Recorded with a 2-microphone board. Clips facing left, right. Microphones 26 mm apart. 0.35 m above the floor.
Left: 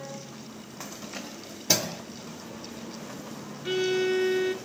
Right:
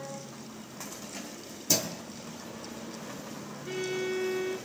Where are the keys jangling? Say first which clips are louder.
Left 3 dB; 20° left (ahead or behind), 0.9 m; by 2.0 s 50° left (ahead or behind), 1.6 m.